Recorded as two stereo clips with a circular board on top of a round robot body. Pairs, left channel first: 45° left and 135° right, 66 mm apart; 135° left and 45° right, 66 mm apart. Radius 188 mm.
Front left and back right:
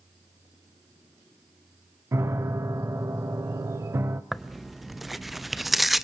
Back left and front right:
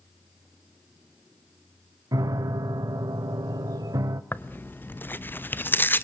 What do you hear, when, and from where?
2.1 s a piano: 80° right, 0.6 m
4.3 s tearing paper: 140° left, 1.3 m